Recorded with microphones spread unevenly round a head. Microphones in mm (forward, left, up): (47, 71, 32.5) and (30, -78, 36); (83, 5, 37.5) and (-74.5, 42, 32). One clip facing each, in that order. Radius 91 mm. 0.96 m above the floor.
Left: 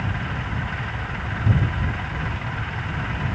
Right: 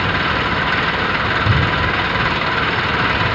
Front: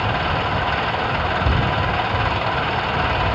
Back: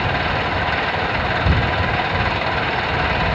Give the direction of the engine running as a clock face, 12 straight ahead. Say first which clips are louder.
Right 10 dB, back 1 dB; 4 o'clock.